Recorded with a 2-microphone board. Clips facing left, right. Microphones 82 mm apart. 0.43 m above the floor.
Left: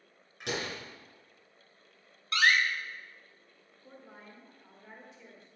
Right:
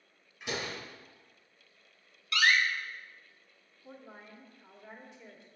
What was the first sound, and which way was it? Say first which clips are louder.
A door slam: left 1 dB; 80° left.